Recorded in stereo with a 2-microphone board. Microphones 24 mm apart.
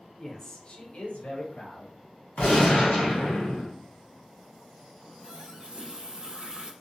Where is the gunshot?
75° left (ahead or behind), 1.4 m.